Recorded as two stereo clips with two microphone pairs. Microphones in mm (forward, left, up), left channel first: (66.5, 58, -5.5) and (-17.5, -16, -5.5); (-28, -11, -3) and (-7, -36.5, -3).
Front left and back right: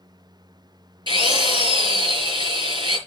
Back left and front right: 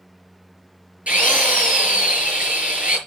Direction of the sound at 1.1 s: 100° right.